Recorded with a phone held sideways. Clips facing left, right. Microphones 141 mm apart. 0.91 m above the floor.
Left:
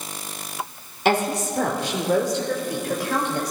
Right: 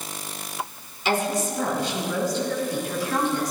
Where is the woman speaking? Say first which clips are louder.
Left 3 dB; 60° left (ahead or behind), 2.5 m; by 3.5 s 65° left (ahead or behind), 3.5 m.